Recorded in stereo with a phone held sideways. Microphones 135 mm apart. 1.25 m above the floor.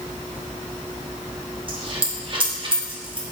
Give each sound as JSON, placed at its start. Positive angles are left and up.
{"t": 1.7, "sound": "a dropped coin", "side_deg": -40, "distance_m": 0.8}